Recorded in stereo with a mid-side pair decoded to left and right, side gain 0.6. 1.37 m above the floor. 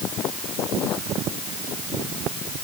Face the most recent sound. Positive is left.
No sound to turn to.